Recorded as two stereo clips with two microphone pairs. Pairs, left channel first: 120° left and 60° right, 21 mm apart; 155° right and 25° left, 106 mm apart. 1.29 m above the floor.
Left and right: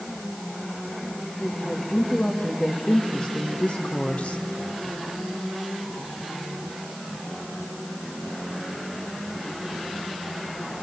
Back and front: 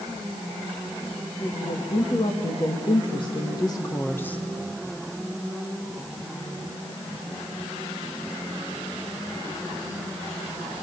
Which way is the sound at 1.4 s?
Straight behind.